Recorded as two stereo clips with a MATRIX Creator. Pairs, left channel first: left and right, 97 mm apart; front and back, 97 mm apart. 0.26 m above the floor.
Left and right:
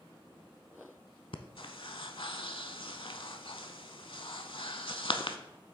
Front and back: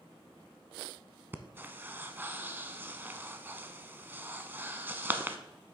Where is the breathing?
110° left, 0.6 m.